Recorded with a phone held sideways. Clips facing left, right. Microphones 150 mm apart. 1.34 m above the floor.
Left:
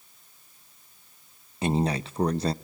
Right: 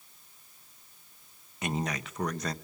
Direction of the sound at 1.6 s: 30° left (ahead or behind).